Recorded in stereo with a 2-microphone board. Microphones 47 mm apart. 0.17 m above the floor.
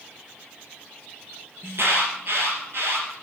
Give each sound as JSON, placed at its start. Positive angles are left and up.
{"t": 1.6, "sound": "an alarm", "side_deg": -50, "distance_m": 5.0}